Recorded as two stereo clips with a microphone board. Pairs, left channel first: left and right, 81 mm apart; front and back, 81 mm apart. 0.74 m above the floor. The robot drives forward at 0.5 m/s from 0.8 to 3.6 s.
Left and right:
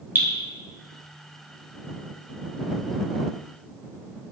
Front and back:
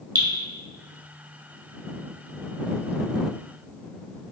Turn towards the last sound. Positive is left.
turn(degrees=-165)